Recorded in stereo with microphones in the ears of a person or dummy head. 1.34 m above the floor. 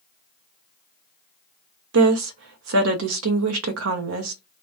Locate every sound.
1.9 s a woman speaking: 80° right, 0.7 m